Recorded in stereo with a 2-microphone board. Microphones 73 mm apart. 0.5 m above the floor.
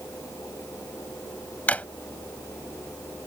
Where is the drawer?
20° left (ahead or behind).